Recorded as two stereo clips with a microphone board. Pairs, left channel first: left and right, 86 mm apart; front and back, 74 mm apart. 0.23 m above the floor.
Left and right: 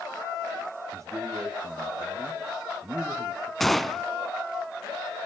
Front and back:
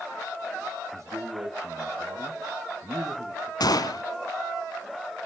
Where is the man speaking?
140° right, 4.5 m.